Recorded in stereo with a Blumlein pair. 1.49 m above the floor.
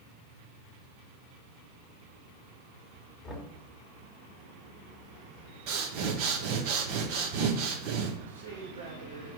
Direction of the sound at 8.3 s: 65° right.